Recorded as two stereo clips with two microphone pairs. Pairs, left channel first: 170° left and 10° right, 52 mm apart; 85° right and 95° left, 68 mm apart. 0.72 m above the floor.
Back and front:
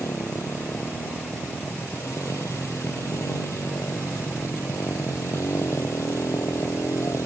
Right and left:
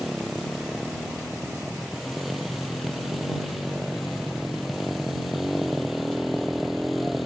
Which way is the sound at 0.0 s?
175° right.